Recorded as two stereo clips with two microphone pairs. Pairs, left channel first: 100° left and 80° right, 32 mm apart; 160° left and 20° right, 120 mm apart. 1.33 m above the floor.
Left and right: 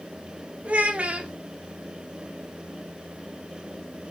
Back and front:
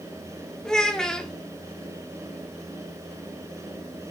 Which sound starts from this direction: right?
A child speaking, at 0.7 s.